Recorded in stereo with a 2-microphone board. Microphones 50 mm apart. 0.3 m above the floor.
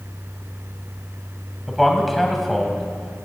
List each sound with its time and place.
1.7 s a man speaking: 5° right (ahead or behind), 1.5 m